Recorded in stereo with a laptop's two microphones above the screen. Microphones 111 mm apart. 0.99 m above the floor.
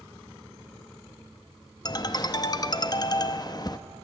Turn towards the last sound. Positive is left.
turn(degrees=35)  # may be behind; listen again after turning